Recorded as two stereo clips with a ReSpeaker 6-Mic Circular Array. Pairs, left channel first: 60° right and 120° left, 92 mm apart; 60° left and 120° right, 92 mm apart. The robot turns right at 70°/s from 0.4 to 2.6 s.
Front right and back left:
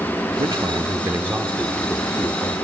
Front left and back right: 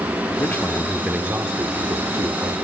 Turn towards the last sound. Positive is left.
turn(degrees=-90)